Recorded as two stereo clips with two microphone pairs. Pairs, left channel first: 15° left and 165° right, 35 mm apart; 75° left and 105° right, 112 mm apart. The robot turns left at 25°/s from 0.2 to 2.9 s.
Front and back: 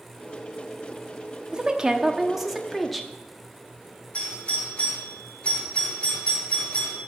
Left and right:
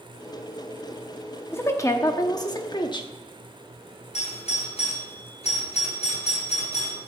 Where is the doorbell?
60° left, 6 m.